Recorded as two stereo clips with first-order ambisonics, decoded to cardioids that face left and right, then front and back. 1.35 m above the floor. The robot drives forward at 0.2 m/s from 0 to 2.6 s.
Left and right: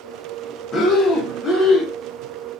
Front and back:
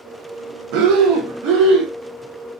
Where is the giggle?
No giggle in this recording.